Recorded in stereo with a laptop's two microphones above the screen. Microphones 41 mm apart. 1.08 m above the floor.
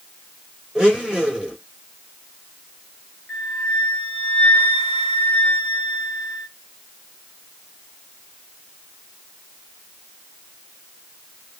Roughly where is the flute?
Centre.